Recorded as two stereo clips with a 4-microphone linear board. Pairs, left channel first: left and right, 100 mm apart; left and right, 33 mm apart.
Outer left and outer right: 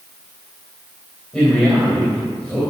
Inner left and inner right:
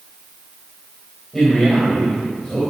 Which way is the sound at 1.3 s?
10° left (ahead or behind).